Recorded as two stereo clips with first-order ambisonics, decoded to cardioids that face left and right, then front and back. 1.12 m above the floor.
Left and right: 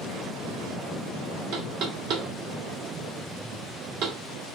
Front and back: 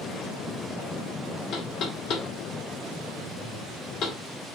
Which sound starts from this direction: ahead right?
Knocking, at 1.5 s.